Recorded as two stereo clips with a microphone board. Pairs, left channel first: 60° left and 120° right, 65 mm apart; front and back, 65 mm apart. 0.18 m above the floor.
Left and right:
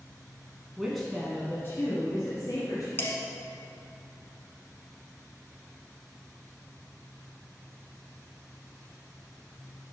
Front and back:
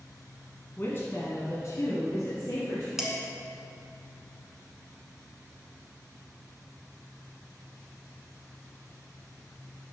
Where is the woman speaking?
45° right, 1.4 m; by 2.9 s 40° left, 2.5 m.